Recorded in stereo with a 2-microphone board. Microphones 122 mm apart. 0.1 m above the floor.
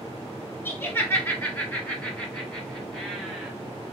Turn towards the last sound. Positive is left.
turn(degrees=-5)  # may be behind; listen again after turning